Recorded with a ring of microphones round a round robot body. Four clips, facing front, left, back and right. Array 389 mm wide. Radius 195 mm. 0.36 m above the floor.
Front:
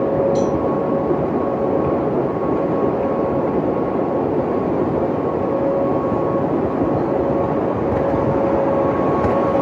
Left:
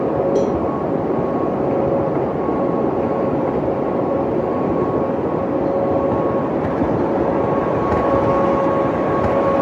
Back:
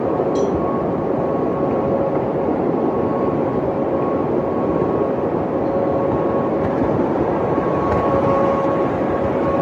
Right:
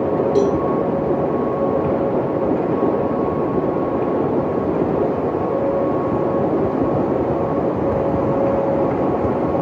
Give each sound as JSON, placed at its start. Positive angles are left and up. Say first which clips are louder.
{"t": 0.3, "sound": "a cowbell", "louder": "right 1 dB, even", "azimuth_deg": -85, "distance_m": 7.5}